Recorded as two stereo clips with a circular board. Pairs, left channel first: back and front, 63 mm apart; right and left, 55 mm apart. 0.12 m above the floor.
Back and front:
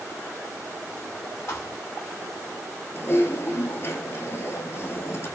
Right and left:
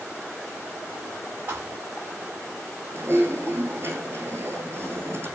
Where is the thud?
150° left, 6.5 m.